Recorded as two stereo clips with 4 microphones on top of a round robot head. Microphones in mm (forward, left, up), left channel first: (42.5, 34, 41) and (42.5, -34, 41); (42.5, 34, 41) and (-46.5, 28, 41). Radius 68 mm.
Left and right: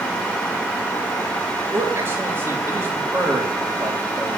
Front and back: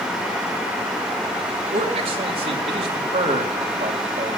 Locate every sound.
1.7 s a man speaking: 155° right, 2.5 m